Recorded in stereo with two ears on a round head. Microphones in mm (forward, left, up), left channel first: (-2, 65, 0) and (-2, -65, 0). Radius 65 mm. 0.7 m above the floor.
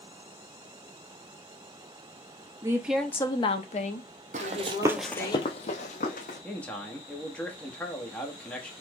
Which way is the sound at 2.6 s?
25° right (ahead or behind).